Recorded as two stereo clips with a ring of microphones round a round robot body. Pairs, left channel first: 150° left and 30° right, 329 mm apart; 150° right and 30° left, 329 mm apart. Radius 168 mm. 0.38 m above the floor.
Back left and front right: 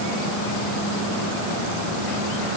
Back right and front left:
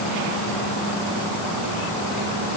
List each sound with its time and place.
Only background noise.